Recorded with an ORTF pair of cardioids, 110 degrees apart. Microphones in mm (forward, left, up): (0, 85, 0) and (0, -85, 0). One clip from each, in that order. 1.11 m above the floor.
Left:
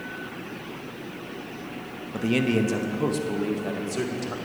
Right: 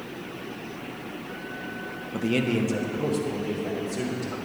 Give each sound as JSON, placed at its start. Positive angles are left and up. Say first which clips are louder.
{"t": 2.1, "sound": "a man speaking", "louder": "left 2 dB", "azimuth_deg": 0, "distance_m": 0.8}